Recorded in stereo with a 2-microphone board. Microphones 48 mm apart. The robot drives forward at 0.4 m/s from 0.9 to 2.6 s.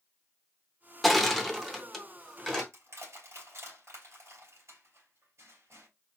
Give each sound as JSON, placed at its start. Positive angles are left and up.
{"t": 1.0, "sound": "crushing", "side_deg": 0, "distance_m": 0.7}
{"t": 2.7, "sound": "crushing", "side_deg": -60, "distance_m": 3.0}